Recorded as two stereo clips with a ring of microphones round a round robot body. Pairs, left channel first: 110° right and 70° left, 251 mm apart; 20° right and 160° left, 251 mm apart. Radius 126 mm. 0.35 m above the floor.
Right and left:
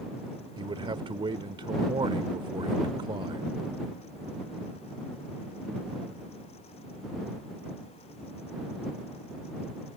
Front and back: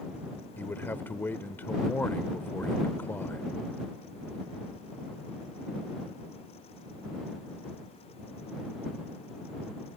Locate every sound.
0.6 s a man speaking: 45° left